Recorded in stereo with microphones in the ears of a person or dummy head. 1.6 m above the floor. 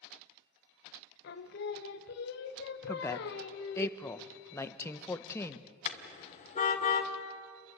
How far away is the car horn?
About 2 m.